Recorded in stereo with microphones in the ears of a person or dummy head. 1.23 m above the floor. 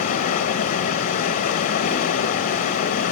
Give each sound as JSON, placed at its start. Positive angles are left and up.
{"t": 0.0, "sound": "running water", "side_deg": 40, "distance_m": 0.8}